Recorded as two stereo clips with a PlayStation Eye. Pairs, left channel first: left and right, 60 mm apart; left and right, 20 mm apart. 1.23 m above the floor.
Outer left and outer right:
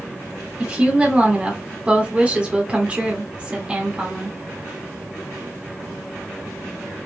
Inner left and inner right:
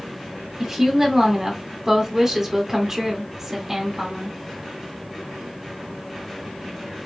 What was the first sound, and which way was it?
A woman speaking, 20° right (ahead or behind).